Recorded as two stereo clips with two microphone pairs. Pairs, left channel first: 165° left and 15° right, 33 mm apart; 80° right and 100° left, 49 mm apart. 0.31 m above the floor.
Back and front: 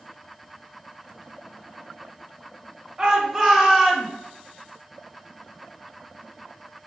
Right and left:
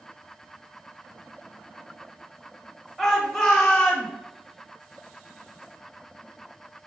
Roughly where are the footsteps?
No footsteps in this recording.